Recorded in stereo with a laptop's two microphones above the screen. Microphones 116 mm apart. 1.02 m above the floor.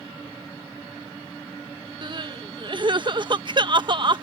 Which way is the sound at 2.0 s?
45° right (ahead or behind).